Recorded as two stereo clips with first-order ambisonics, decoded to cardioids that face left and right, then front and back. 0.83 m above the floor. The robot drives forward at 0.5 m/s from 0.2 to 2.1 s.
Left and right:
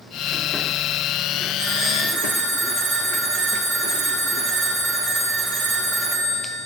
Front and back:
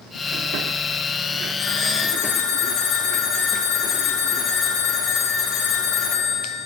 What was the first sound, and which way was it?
A phone ringing, 45° right.